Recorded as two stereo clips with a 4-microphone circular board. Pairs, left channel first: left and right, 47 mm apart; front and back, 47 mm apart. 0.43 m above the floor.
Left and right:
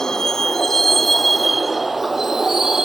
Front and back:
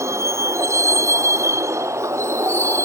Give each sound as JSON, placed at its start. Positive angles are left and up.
{"t": 0.0, "sound": "a vehicle", "azimuth_deg": 170}